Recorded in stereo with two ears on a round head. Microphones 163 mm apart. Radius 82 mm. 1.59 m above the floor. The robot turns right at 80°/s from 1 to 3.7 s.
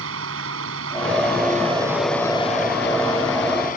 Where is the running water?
85° right; by 3.8 s 130° left.